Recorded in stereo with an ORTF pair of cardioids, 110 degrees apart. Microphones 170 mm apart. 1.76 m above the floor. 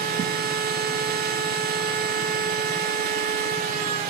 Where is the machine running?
65° right, 6 m.